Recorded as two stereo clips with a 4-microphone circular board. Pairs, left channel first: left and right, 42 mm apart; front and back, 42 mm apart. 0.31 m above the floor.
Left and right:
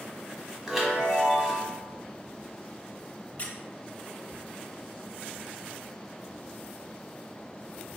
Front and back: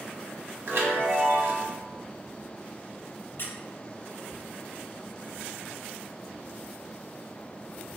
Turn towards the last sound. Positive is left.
turn(degrees=35)